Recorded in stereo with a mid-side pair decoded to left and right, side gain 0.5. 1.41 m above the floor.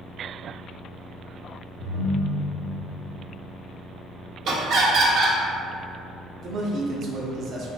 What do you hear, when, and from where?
1.8 s a ringtone: 55° right, 0.9 m
4.5 s laughter: 65° right, 0.7 m
6.4 s a man speaking: 55° right, 0.6 m